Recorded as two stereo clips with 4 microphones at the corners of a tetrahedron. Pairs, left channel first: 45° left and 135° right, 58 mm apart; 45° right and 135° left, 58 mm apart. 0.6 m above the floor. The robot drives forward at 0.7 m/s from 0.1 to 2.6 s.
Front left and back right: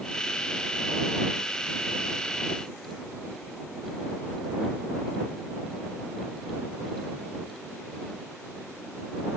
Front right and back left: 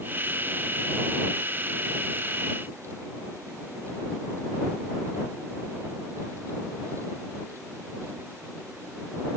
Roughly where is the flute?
I don't hear a flute.